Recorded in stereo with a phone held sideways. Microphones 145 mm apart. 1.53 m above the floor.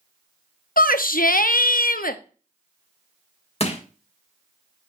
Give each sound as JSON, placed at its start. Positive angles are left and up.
{"t": 0.8, "sound": "a shout", "side_deg": 75, "distance_m": 0.7}
{"t": 3.6, "sound": "crushing", "side_deg": 45, "distance_m": 1.5}